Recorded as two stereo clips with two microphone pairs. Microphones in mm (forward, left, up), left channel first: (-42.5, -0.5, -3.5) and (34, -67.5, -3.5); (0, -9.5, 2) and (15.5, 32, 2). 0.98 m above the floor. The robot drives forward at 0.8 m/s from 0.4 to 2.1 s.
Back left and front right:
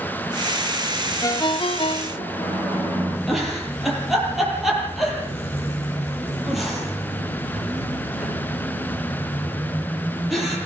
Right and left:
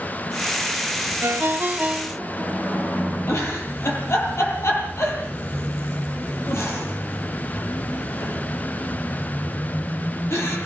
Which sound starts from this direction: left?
A ringtone, at 1.2 s.